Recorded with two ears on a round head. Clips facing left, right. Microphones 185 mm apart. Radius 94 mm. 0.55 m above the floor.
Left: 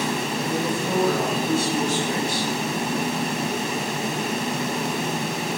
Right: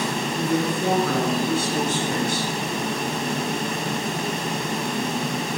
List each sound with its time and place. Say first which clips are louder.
0.4 s a woman speaking: right 6 dB; 55° right (ahead or behind), 5.5 m; by 2.5 s 40° right (ahead or behind), 3 m